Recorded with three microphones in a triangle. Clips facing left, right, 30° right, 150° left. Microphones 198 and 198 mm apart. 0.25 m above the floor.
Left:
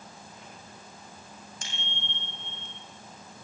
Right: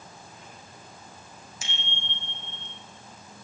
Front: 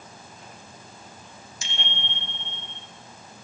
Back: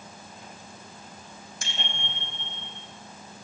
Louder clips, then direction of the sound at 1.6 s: Right 2 dB, even; 175° right.